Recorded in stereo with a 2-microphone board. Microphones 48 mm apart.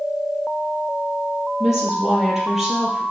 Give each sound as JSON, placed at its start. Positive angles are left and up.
{"t": 1.6, "sound": "a woman speaking", "side_deg": -10, "distance_m": 3.5}